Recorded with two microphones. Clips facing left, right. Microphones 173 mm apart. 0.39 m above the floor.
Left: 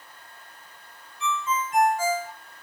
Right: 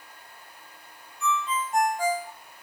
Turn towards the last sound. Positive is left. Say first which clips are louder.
# even
turn(degrees=70)  # may be behind; listen again after turning